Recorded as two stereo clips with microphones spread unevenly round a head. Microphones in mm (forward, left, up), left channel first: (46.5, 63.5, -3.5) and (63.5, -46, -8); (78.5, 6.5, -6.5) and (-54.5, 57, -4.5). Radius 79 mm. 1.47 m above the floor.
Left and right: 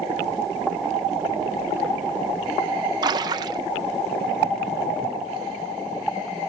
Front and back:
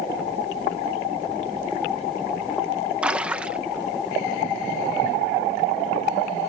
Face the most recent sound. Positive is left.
turn(degrees=-125)